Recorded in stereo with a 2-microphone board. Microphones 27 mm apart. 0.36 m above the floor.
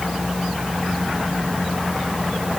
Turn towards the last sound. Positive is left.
No sound to turn to.